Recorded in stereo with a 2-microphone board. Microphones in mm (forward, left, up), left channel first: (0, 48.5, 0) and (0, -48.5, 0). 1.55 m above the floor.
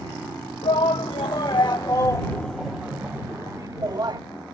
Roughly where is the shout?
Left.